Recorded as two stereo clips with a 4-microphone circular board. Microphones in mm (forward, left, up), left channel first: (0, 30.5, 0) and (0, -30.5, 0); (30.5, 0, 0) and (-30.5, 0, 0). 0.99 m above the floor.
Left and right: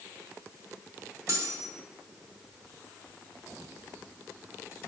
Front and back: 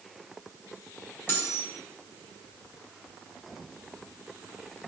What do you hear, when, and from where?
1.3 s cutlery clinking: 50° right, 1.7 m